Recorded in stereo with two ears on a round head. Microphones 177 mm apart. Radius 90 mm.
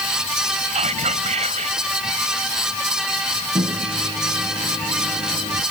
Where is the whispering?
35° right (ahead or behind).